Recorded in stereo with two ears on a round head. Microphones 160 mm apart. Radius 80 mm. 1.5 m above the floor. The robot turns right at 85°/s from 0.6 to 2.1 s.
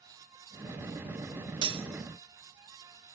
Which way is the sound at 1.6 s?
25° right (ahead or behind).